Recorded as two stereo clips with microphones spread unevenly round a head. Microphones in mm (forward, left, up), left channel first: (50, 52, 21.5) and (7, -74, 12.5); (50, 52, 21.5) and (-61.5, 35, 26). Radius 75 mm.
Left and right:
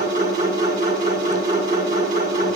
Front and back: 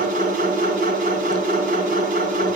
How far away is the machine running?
About 7.5 m.